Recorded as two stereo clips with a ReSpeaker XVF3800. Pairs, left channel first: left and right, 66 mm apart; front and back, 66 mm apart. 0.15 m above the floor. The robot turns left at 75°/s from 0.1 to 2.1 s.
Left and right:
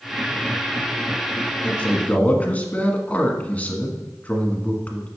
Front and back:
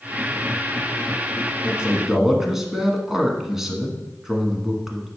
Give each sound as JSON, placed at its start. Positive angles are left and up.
{"t": 1.6, "sound": "a man speaking", "azimuth_deg": 140, "distance_m": 1.2}